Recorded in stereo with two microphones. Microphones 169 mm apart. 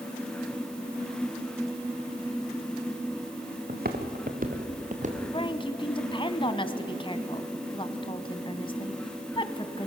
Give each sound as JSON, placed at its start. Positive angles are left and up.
{"t": 3.7, "sound": "footsteps", "side_deg": -65, "distance_m": 2.0}
{"t": 5.3, "sound": "a woman speaking", "side_deg": 30, "distance_m": 1.4}